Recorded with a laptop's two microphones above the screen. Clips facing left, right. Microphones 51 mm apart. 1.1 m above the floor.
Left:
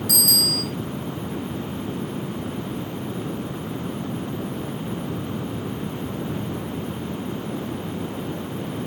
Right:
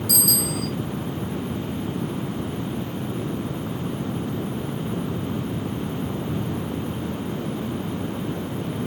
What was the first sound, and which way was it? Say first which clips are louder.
A bicycle bell: left 1 dB; 45° left (ahead or behind).